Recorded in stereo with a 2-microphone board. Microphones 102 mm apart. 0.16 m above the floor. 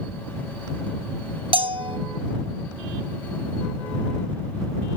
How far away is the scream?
I don't hear a scream.